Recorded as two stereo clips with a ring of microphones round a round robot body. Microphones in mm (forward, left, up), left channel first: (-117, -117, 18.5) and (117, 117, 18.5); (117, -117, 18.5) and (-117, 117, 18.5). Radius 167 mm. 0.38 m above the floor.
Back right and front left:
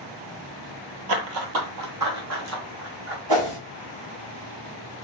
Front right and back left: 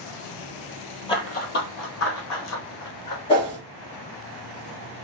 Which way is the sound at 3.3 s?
30° left.